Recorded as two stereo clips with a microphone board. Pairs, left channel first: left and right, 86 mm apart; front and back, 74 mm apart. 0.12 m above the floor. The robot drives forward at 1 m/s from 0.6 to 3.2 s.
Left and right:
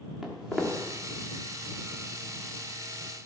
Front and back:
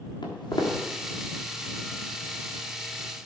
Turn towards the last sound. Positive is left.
turn(degrees=-55)